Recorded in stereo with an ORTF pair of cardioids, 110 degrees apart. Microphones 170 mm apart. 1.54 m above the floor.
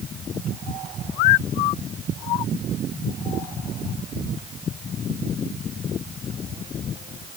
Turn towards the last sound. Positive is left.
No sound to turn to.